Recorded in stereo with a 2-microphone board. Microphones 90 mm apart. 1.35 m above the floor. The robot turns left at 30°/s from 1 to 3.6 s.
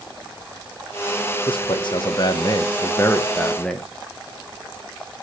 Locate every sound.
1.5 s a man speaking: 75° left, 0.7 m; by 3.9 s 10° left, 0.7 m